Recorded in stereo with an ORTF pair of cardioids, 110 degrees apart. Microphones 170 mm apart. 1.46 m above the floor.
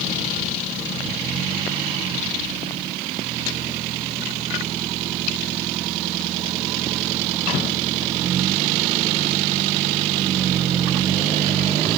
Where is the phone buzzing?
I don't hear a phone buzzing.